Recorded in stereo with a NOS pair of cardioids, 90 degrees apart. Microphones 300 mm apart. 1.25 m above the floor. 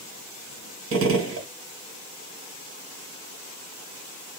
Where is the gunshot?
50° right, 1.4 m.